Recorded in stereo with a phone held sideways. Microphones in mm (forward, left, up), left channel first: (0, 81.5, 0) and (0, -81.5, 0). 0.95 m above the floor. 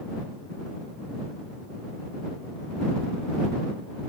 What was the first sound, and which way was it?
Only background noise.